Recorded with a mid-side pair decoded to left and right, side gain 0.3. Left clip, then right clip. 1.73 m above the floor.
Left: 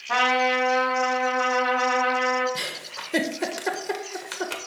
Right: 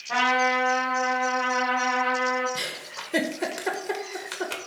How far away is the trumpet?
About 4.5 m.